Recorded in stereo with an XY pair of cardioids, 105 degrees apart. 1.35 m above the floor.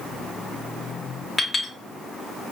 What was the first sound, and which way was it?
A clink, 20° left.